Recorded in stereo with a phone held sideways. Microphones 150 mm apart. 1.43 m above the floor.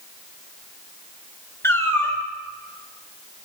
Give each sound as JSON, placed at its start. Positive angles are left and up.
{"t": 1.6, "sound": "a cat meowing", "side_deg": 15, "distance_m": 2.0}